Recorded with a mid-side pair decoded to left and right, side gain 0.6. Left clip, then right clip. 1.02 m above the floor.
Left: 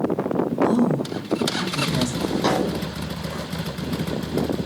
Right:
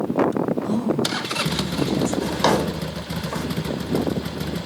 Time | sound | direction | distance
0.6 | a woman speaking | 40° left | 1.4 m
2.2 | a drawer | 50° right | 0.9 m